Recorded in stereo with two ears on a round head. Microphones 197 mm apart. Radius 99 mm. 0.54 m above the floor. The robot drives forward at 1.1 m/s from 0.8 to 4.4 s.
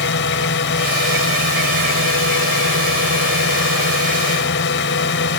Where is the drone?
55° left (ahead or behind).